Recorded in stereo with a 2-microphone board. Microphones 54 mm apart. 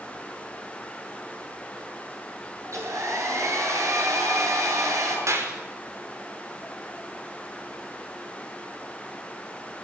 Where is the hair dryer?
70° right (ahead or behind), 8.5 m.